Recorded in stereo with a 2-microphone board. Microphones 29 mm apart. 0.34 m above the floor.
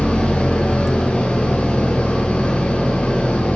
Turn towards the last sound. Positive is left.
turn(degrees=65)  # may be behind; listen again after turning